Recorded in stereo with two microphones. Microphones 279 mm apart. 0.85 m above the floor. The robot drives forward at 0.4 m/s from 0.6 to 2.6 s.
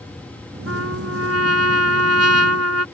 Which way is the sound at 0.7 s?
60° right (ahead or behind).